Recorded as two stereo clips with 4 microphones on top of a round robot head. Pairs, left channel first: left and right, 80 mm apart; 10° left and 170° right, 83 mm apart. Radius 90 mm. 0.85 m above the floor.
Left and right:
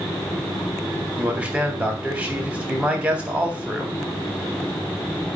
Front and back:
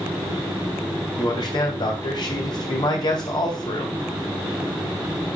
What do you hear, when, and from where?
1.2 s a man speaking: 15° right, 1.3 m